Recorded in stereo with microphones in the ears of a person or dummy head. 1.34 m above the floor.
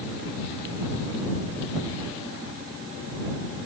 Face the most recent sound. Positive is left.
No sound to turn to.